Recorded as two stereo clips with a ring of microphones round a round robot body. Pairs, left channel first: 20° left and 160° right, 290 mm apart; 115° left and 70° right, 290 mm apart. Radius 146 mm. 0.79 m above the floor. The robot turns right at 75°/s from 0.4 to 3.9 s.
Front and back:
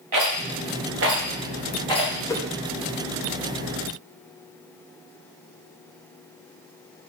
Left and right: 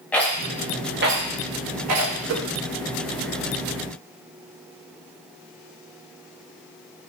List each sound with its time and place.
0.1 s a rattle: 165° right, 1.1 m; by 2.1 s 35° right, 1.1 m
2.3 s a whoosh: 55° right, 0.7 m; by 2.5 s 45° right, 0.7 m